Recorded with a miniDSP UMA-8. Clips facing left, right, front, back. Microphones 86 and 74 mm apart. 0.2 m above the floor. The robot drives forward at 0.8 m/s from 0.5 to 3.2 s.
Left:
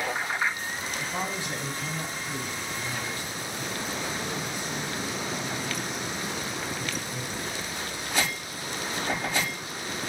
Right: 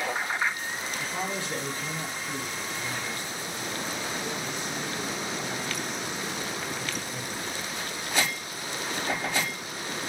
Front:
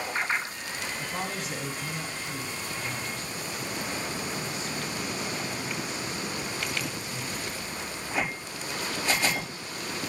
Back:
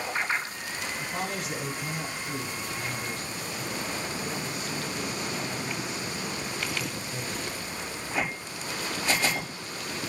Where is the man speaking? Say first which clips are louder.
Even, back 1 dB; 55° left, 1.3 m; by 8.2 s 165° left, 1.9 m.